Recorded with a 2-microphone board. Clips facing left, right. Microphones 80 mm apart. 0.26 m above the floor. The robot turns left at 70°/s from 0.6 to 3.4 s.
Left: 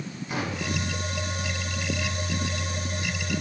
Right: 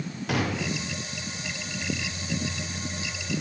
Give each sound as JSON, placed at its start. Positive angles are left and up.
{"t": 0.3, "sound": "a gunshot", "side_deg": -70, "distance_m": 4.5}